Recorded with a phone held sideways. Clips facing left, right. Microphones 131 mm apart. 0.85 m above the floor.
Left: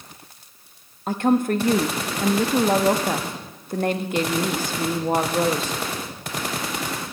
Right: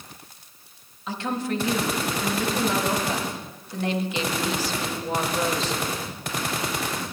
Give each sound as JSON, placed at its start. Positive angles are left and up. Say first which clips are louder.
{"t": 1.1, "sound": "a woman speaking", "louder": "left 8 dB", "side_deg": 50, "distance_m": 0.9}